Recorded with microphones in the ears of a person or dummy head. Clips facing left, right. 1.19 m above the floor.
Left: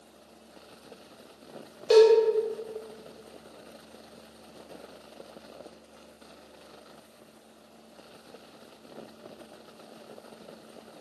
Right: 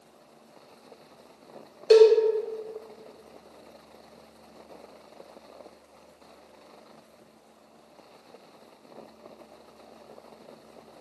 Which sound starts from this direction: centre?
A cowbell, at 1.9 s.